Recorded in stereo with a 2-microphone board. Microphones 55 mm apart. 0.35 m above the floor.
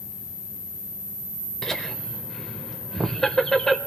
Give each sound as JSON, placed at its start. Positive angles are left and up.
{"t": 1.6, "sound": "laughter", "side_deg": 10, "distance_m": 1.0}